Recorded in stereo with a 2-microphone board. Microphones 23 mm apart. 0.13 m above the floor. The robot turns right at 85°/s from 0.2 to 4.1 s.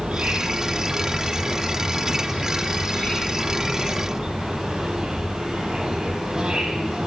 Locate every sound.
0.0 s an insect: 110° right, 5.5 m; by 7.1 s 140° right, 5.5 m